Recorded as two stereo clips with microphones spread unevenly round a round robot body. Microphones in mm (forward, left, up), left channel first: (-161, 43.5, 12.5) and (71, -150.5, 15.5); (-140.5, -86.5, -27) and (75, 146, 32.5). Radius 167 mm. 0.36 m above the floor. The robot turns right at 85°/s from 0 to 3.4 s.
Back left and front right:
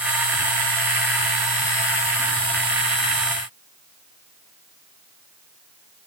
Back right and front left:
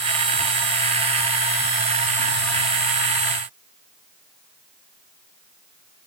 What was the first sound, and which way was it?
Only background noise.